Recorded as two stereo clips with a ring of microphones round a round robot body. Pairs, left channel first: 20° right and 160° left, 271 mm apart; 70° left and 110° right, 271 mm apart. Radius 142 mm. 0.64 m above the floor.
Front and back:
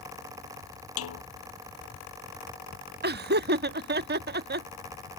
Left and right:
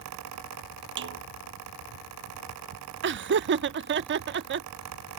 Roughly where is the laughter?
Behind right.